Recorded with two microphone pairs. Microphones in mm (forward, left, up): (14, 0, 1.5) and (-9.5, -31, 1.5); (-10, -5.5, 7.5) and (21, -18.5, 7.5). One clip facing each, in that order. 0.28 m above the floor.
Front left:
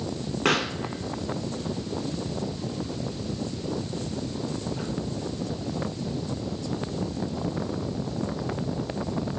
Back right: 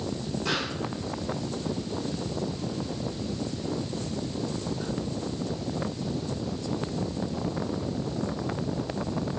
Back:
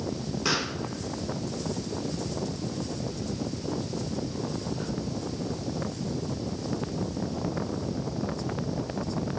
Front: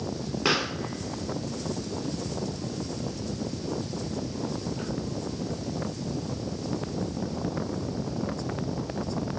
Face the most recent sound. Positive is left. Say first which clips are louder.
# front left 7 dB, front 3 dB
turn(degrees=35)